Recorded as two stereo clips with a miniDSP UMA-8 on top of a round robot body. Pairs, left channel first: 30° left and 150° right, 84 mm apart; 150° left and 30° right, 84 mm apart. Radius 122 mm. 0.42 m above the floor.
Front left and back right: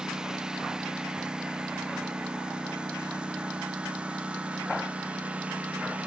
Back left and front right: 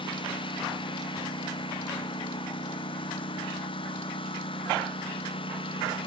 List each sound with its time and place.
0.0 s a lawn mower: 125° left; by 6.1 s 135° left